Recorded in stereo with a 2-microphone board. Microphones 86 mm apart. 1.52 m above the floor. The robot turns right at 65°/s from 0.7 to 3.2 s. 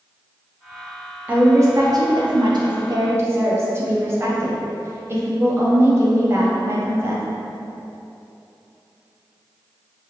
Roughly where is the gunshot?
I don't hear a gunshot.